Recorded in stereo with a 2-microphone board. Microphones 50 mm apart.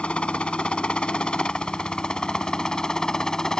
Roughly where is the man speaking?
No man speaking in this recording.